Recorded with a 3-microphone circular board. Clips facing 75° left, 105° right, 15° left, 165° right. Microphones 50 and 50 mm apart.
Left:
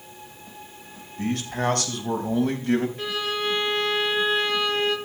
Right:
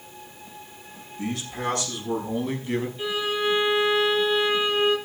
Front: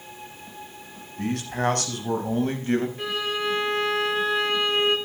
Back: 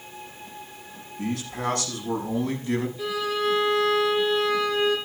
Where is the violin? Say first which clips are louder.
Right 1 dB, back 1 dB; 45° left, 5.5 m.